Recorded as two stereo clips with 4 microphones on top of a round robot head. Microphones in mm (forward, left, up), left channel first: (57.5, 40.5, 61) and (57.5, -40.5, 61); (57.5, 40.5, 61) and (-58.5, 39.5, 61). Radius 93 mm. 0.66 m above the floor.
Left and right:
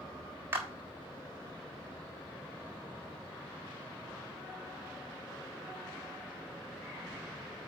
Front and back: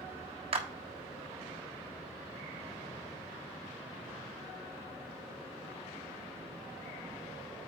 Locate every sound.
0.5 s a clap: 150° right, 1.3 m